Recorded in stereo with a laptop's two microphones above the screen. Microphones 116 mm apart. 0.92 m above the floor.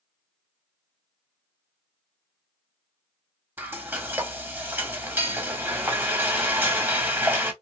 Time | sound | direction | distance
3.6 | frying | 20° right (ahead or behind) | 1.0 m